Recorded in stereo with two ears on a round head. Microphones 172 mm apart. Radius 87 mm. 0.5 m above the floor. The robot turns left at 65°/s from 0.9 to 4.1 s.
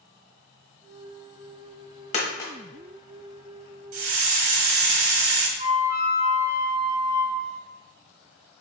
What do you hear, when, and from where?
2.1 s a dropped coin: 35° left (ahead or behind), 1.0 m; by 2.5 s 10° left (ahead or behind), 1.0 m
3.9 s a hiss: 80° right, 0.9 m; by 5.5 s 85° right, 0.9 m
5.6 s a flute: 50° left (ahead or behind), 1.6 m